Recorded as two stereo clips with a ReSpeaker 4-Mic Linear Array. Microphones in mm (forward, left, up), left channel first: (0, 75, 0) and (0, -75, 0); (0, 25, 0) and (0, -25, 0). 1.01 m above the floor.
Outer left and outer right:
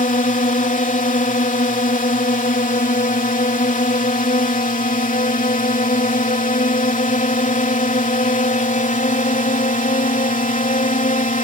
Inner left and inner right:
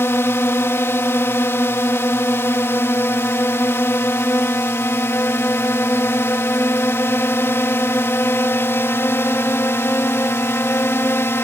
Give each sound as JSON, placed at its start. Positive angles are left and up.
{"t": 0.0, "sound": "a drone", "side_deg": 60}